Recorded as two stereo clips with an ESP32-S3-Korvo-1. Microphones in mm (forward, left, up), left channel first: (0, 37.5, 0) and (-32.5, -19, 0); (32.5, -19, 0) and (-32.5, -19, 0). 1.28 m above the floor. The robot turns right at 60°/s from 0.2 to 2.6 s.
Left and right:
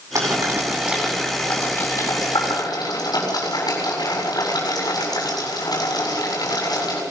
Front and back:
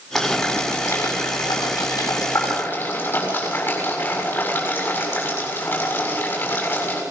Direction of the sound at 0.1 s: 90° right.